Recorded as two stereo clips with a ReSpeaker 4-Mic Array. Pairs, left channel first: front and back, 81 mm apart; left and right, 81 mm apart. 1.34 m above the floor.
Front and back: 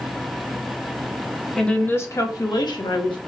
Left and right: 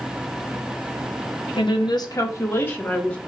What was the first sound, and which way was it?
A woman speaking, 85° left.